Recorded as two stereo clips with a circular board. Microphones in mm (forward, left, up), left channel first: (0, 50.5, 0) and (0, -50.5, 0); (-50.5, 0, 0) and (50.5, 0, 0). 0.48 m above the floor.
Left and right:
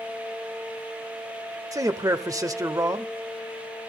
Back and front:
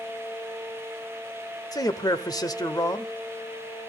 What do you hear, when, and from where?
1.7 s a man speaking: 140° right, 1.3 m